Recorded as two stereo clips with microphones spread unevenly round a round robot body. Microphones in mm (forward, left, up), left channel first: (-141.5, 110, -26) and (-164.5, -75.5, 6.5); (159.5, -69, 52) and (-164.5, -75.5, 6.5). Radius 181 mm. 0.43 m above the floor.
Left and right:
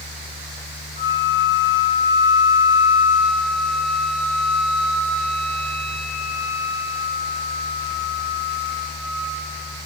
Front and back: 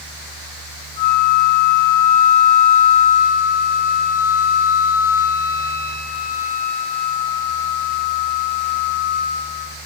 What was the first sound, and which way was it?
A flute, 25° right.